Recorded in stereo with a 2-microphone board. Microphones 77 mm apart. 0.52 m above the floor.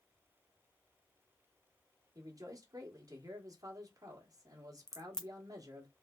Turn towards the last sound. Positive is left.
turn(degrees=5)  # may be behind; listen again after turning